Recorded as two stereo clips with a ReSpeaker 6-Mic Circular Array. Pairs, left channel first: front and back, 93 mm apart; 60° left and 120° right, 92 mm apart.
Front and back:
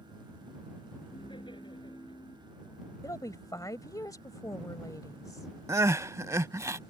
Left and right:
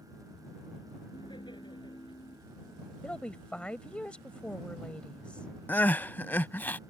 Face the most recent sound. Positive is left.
turn(degrees=130)